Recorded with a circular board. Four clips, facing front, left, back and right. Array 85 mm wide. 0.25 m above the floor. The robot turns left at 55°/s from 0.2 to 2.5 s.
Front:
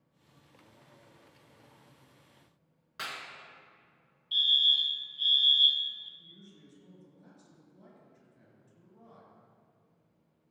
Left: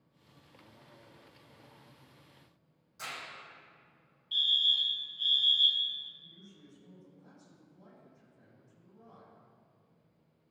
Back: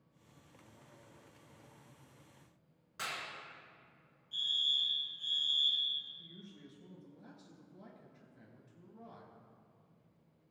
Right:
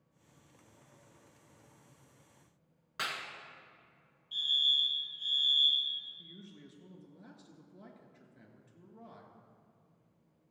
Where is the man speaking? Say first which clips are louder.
Right 4 dB, back 2 dB; 105° right, 3 m.